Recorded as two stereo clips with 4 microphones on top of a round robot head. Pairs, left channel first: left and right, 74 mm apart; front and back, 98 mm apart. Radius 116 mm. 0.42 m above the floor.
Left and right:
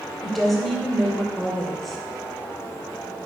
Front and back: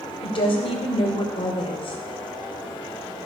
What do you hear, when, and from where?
0.2 s a woman speaking: 5° left, 3 m